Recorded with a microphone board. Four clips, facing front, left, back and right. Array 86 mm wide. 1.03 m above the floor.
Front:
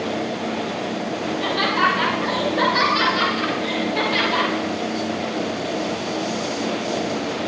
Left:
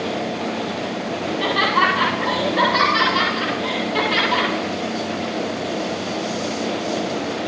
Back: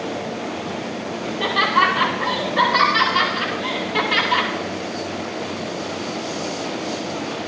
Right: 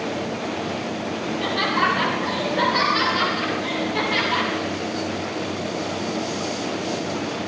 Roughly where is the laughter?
Behind left.